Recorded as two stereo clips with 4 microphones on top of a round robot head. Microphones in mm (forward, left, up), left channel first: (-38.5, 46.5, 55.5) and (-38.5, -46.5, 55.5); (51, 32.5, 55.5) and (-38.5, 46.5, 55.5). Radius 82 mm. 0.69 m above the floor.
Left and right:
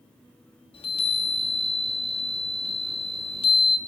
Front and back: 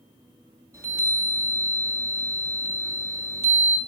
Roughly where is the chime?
Left.